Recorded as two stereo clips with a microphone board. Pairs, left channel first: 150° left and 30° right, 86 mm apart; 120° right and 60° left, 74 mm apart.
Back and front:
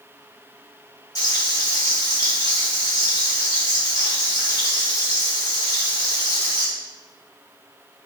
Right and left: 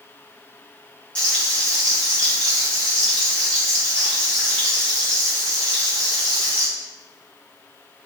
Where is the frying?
175° left, 1.9 m.